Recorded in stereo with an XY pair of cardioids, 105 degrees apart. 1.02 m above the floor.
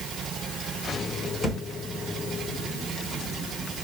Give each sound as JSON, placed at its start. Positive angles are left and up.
{"t": 1.4, "sound": "a thud", "azimuth_deg": 15, "distance_m": 1.8}